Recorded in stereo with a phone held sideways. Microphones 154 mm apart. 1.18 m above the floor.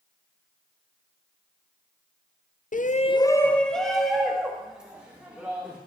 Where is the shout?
60° left (ahead or behind), 0.5 m; by 5.8 s 10° right (ahead or behind), 3.5 m.